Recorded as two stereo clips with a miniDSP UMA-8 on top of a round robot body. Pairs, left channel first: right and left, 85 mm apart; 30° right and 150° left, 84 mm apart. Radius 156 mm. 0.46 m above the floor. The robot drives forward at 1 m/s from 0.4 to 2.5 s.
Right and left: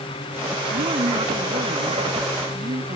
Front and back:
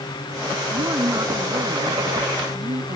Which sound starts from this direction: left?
A woman speaking, at 0.7 s.